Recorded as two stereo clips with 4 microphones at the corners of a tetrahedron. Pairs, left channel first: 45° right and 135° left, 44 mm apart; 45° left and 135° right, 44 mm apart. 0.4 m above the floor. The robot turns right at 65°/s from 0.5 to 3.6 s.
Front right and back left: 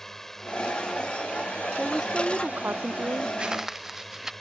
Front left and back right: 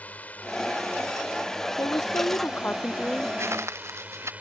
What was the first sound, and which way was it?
A drone, 30° left.